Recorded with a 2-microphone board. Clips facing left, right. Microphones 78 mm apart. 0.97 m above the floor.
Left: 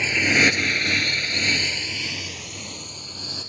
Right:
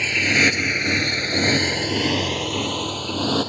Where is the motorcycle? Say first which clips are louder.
Even; 15° left (ahead or behind); by 3.5 s 80° right.